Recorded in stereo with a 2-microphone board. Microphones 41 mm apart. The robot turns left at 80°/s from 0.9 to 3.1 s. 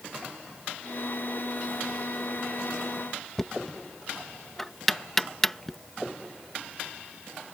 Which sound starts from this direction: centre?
Knocking, at 3.4 s.